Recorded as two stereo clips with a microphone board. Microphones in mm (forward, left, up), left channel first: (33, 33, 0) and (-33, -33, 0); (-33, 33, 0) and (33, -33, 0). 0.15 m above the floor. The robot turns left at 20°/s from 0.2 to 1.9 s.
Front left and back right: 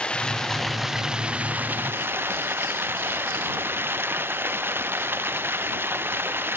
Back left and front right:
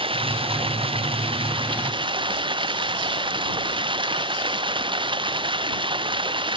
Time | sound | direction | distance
0.0 | running water | 35° right | ?